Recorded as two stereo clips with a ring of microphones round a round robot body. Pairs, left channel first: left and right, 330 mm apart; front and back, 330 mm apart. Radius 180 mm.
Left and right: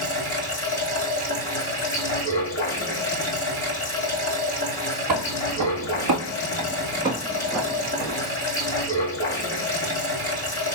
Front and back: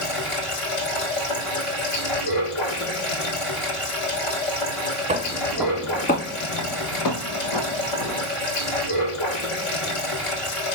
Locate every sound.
0.0 s running water: 20° left, 2.5 m
5.1 s footsteps: 110° right, 0.9 m; by 8.3 s 10° left, 1.4 m